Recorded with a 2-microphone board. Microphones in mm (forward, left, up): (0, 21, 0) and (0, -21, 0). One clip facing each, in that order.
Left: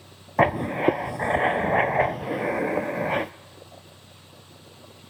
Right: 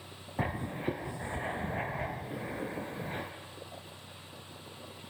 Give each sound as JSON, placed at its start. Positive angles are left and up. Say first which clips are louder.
{"t": 0.4, "sound": "writing", "louder": "left 14 dB", "side_deg": 85, "distance_m": 0.6}